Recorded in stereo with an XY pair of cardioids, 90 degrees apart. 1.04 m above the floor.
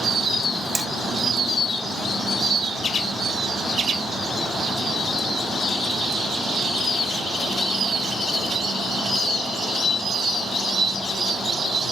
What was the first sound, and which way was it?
Hammering, 20° right.